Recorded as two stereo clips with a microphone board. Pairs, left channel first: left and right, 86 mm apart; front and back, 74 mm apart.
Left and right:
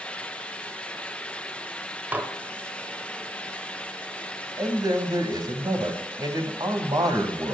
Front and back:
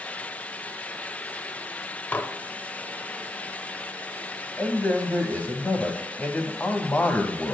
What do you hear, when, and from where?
2.1 s dishes clattering: 45° right, 0.8 m
4.6 s a man speaking: 65° right, 1.6 m